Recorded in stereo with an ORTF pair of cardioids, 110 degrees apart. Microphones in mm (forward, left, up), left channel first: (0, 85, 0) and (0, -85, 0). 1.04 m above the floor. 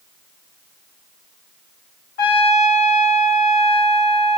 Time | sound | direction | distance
2.2 | a trumpet | 65° left | 1.3 m